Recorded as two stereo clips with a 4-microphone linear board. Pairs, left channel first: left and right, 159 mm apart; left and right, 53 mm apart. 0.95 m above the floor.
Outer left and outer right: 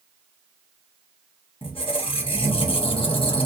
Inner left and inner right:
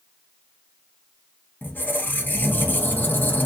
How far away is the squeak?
About 0.7 m.